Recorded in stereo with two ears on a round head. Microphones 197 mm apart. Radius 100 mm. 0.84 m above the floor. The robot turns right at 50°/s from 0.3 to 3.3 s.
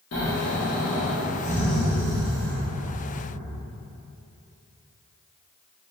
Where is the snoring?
105° left, 0.8 m; by 2.6 s 135° right, 0.8 m.